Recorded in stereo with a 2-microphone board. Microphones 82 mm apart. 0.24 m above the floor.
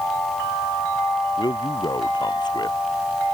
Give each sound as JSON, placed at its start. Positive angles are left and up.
{"t": 1.4, "sound": "a man speaking", "side_deg": 60}